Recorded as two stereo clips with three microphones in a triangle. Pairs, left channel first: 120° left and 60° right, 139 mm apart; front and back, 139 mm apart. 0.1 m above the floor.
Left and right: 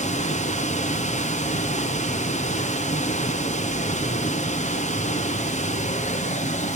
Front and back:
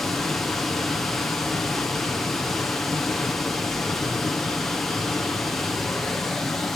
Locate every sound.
0.0 s running water: 90° left, 1.8 m